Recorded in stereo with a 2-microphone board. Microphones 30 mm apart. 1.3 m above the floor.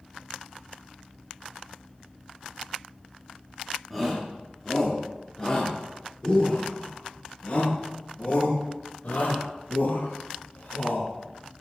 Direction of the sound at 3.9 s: 5° left (ahead or behind).